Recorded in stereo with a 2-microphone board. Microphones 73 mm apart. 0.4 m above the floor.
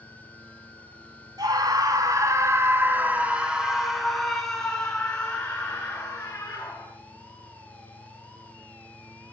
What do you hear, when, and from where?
1.4 s a scream: 65° right (ahead or behind), 3 m; by 6.9 s 25° left (ahead or behind), 6.5 m